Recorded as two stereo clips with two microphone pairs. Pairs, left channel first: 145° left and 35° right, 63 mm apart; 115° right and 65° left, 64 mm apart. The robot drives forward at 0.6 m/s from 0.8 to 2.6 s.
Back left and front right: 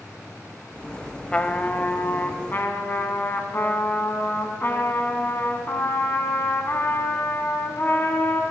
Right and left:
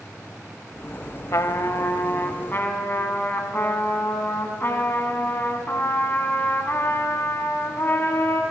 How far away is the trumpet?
About 0.7 m.